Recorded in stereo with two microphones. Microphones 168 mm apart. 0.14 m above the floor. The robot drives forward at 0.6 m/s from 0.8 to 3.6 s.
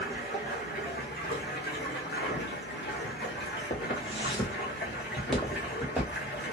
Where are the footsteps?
40° left (ahead or behind), 1.7 m; by 6.2 s 10° right (ahead or behind), 2.5 m.